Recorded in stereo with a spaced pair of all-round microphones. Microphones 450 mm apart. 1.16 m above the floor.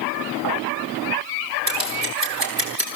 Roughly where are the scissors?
Right.